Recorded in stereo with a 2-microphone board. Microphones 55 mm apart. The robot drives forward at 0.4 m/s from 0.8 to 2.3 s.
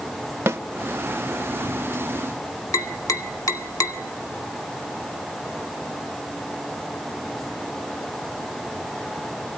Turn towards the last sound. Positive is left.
turn(degrees=80)